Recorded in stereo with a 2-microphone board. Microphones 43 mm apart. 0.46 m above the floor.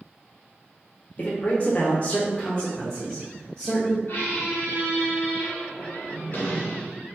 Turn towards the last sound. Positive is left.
turn(degrees=55)  # may be behind; listen again after turning